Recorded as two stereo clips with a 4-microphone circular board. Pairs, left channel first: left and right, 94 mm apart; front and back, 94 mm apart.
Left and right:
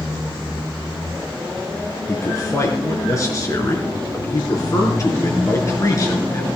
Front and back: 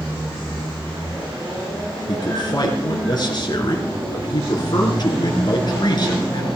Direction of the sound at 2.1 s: 40° left.